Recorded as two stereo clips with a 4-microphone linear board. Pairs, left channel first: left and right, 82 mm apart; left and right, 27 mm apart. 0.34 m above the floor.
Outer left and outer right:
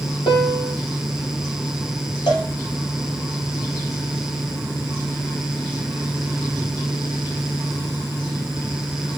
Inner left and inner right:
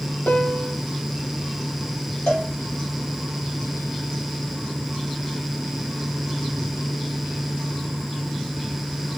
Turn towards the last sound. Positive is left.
turn(degrees=75)  # may be behind; listen again after turning